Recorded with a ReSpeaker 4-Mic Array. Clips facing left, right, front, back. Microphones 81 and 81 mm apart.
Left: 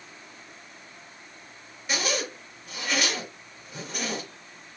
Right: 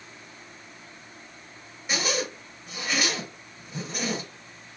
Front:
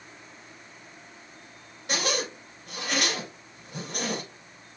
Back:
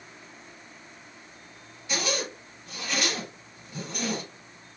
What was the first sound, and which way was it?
A zipper, 5° right.